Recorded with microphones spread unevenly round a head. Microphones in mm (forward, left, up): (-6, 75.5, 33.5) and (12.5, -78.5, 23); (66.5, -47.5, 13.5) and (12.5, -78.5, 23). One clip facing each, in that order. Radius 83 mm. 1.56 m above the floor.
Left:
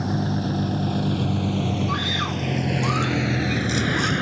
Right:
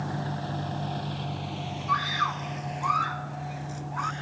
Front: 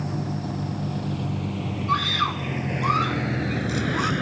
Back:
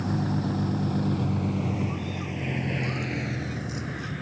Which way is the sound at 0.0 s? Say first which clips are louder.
Left 8 dB, back 2 dB; 140° left.